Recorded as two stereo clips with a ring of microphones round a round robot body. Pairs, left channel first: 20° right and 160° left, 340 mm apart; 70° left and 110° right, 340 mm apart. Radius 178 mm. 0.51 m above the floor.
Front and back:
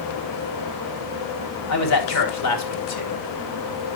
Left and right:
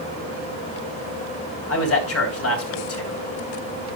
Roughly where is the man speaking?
Ahead.